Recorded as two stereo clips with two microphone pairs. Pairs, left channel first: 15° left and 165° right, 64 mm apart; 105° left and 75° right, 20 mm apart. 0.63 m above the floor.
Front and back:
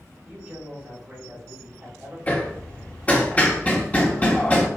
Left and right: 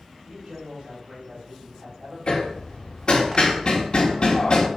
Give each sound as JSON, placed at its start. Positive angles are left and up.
{"t": 0.3, "sound": "a man speaking", "azimuth_deg": -95, "distance_m": 3.5}
{"t": 2.3, "sound": "hammering", "azimuth_deg": 80, "distance_m": 1.4}